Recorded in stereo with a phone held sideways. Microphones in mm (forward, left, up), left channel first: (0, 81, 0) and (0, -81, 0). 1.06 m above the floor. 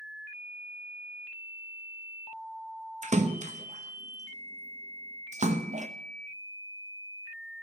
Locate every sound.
3.0 s a splash: 45° right (ahead or behind), 0.8 m